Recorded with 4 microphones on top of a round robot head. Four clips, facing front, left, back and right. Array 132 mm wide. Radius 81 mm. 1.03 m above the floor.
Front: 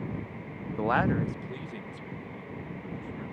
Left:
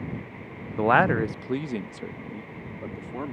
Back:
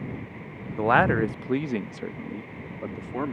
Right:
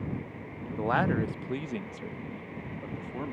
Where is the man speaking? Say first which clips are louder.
Left 7 dB, back 6 dB; 105° left; by 3.3 s 175° left.